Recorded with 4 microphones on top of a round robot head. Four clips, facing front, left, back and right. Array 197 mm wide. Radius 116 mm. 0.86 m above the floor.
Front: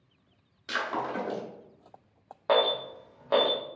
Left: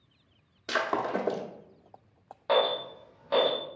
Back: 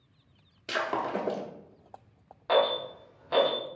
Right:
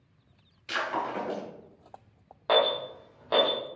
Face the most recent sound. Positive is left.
turn(degrees=-30)